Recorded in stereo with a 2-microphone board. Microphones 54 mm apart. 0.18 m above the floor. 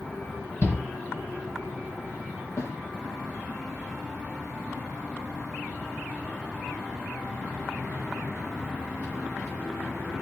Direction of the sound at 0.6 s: 45° left (ahead or behind).